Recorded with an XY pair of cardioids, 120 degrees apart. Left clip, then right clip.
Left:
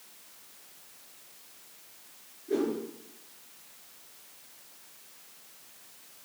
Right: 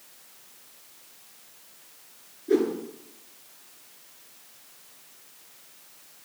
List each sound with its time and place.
2.5 s a whoosh: 50° right, 8 m